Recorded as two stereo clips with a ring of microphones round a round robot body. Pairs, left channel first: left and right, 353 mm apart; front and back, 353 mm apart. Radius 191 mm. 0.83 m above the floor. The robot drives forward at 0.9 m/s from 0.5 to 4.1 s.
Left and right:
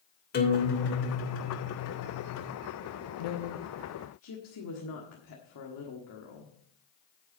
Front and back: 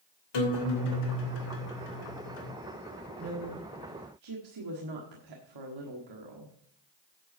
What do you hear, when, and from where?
0.3 s a guitar: 25° left, 3 m; by 2.5 s 60° left, 1.6 m
3.2 s a woman speaking: 105° left, 0.9 m; by 6.5 s 140° left, 1.4 m